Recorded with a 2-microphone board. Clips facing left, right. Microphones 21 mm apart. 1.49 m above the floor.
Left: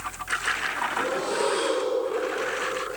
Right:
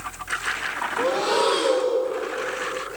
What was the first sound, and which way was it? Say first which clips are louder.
Breathing: right 7 dB; 90° right.